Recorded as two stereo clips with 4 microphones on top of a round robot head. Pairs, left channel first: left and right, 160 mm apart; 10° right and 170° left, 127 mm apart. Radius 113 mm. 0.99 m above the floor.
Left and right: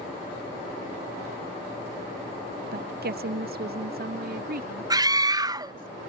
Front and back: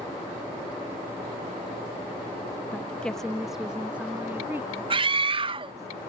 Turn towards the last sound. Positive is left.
turn(degrees=-155)